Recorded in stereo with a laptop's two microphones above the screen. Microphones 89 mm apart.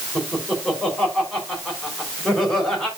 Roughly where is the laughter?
Centre.